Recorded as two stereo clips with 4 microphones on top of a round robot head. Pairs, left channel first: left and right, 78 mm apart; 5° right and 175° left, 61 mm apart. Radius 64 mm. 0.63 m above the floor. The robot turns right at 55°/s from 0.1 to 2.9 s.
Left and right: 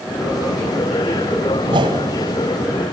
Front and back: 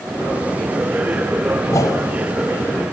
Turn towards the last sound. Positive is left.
turn(degrees=5)